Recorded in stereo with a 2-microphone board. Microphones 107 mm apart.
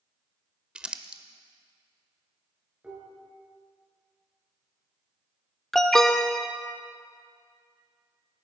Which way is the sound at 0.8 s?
10° right (ahead or behind).